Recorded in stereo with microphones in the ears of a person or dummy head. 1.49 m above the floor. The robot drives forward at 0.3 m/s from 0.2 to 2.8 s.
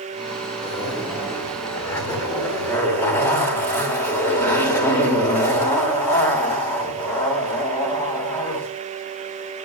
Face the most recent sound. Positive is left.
turn(degrees=20)  # may be behind; listen again after turning